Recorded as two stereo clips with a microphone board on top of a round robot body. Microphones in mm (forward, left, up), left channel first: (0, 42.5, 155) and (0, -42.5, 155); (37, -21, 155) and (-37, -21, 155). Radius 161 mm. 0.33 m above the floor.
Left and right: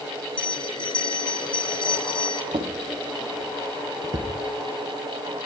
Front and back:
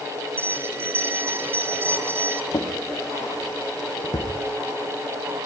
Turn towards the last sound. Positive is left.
turn(degrees=-50)